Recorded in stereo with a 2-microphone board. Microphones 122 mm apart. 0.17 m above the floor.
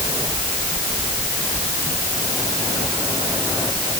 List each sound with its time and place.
Only background noise.